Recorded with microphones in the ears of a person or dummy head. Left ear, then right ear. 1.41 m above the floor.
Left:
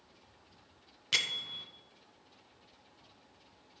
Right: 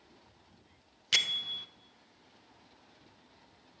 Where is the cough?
No cough in this recording.